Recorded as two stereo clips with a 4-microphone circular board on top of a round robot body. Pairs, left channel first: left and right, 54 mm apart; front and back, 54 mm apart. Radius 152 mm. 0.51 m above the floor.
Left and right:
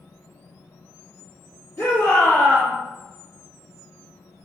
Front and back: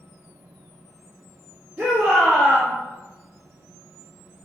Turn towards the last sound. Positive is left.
turn(degrees=135)